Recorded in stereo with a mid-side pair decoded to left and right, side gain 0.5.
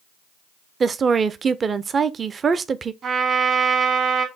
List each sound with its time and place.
0.8 s a woman speaking: 35° right, 0.5 m
3.0 s a trumpet: 55° right, 1.9 m